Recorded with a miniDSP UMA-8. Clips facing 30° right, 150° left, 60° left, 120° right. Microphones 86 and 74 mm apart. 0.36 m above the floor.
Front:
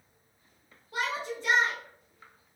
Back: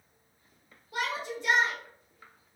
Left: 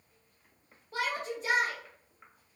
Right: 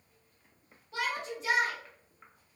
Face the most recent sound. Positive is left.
turn(degrees=75)